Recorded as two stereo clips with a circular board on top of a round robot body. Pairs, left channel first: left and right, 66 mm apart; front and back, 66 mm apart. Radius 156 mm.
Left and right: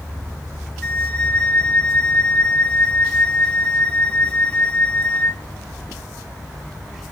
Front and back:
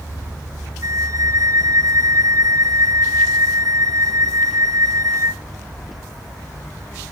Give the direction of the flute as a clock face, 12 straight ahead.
7 o'clock.